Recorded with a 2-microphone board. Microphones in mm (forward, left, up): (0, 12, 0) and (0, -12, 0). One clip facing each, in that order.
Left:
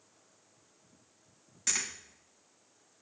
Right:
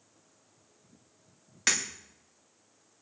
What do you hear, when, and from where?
1.7 s breaking glass: 45° right (ahead or behind), 8.5 m